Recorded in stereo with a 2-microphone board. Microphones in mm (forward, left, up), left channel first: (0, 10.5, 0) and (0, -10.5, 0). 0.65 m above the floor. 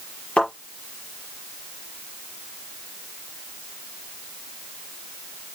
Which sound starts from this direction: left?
A thud, at 0.4 s.